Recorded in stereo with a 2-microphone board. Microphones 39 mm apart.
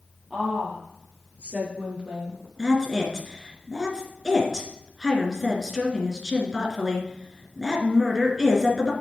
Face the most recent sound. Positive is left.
turn(degrees=-10)  # may be behind; listen again after turning